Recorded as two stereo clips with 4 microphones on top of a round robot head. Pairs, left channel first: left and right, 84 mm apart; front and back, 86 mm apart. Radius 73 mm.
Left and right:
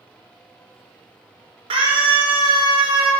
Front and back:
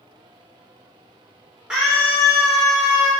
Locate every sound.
1.7 s a scream: 95° right, 4 m